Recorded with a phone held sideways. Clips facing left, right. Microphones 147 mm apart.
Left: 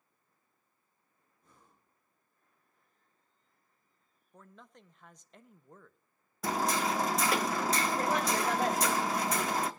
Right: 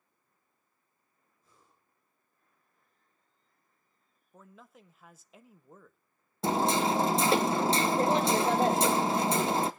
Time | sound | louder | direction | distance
1.4 | breathing | left 2 dB | 75° left (ahead or behind) | 6.5 m
4.3 | a man speaking | right 1 dB | 5° right (ahead or behind) | 0.9 m
6.4 | hammering | right 4 dB | 30° right (ahead or behind) | 0.8 m